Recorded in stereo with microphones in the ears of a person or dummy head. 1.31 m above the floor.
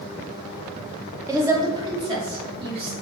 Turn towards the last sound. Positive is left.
turn(degrees=-30)  # may be behind; listen again after turning